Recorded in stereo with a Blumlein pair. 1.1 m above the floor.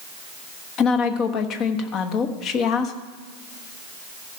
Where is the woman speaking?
30° left, 1.2 m.